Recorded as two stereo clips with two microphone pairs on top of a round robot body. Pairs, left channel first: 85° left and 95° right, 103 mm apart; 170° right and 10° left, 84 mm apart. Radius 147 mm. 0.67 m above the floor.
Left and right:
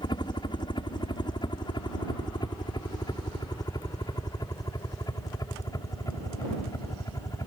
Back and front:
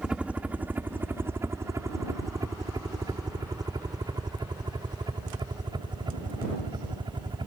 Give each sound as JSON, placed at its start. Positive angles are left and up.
{"t": 0.0, "sound": "a helicopter", "azimuth_deg": 85}